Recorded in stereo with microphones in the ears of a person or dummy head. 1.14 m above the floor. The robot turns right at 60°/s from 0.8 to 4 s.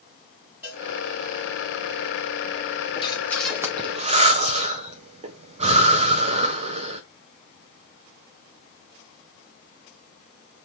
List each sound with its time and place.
0.6 s a cowbell: 10° right (ahead or behind), 2.5 m
3.0 s breathing: 30° left (ahead or behind), 0.8 m; by 7.0 s 30° right (ahead or behind), 0.8 m